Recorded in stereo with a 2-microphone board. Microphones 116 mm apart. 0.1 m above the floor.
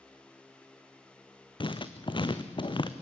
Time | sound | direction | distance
1.6 | writing | 45° left (ahead or behind) | 1.3 m